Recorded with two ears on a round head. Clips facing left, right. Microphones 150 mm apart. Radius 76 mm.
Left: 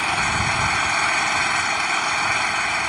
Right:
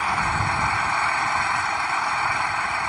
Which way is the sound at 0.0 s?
35° left (ahead or behind).